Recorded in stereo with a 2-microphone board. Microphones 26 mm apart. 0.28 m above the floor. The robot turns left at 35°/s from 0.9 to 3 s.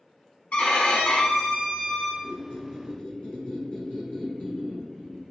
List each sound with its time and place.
0.5 s a violin: 105° left, 0.6 m; by 2.1 s 60° left, 0.6 m
2.2 s a squeak: 75° left (ahead or behind), 1.3 m; by 5.2 s 50° left (ahead or behind), 1.3 m